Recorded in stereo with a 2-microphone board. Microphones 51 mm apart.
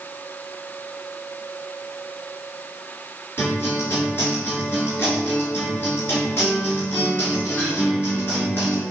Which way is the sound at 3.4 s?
45° left (ahead or behind).